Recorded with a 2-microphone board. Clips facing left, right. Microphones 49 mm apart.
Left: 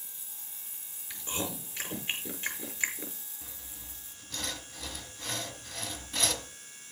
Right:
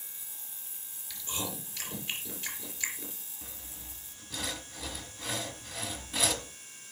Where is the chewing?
30° left (ahead or behind), 4 m.